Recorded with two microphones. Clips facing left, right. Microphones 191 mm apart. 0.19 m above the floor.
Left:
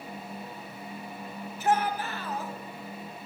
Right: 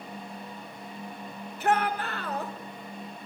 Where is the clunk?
No clunk in this recording.